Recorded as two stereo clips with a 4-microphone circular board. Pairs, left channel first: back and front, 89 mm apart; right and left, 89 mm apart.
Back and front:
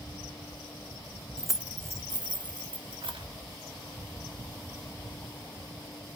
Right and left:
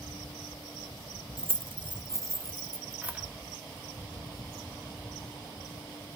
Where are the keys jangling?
100° left, 0.6 m; by 3.3 s 15° left, 1.6 m.